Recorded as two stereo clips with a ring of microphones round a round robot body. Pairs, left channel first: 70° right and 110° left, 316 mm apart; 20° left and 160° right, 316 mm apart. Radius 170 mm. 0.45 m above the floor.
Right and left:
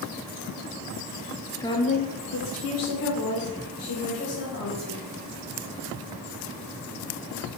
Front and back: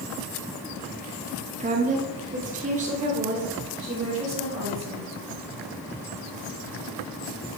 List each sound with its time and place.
1.6 s a woman speaking: 135° right, 0.7 m; by 5.0 s 85° right, 2.5 m